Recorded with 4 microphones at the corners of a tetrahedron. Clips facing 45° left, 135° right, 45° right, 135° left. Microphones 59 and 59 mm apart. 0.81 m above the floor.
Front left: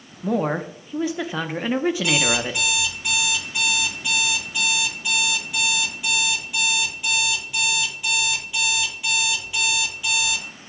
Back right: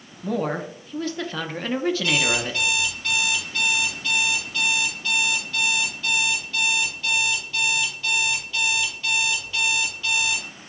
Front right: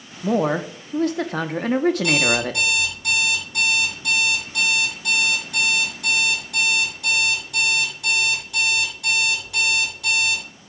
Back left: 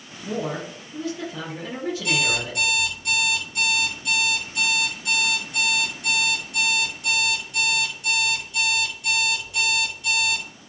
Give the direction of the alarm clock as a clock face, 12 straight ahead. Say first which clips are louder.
Front left 1 dB, front right 4 dB; 1 o'clock.